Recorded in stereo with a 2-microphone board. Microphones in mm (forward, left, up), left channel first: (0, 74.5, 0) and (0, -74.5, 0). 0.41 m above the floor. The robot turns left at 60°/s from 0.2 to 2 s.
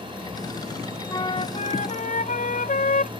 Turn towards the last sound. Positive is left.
turn(degrees=100)